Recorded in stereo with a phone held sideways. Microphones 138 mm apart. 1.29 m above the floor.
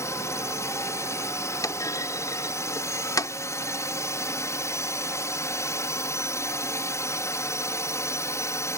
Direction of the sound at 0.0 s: 20° left (ahead or behind).